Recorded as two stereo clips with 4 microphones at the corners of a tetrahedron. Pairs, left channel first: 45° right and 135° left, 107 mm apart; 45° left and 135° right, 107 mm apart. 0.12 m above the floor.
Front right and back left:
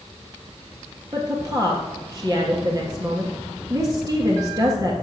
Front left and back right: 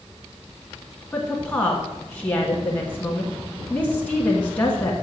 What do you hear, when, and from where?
1.1 s a woman speaking: 110° left, 1.4 m